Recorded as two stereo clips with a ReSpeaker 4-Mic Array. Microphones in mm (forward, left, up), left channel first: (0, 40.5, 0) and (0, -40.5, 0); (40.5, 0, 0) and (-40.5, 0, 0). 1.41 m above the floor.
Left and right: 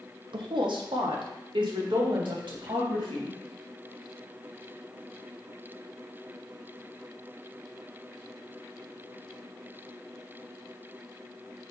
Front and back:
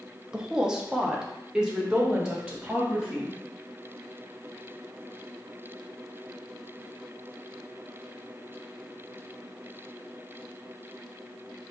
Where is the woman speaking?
100° right, 0.7 m.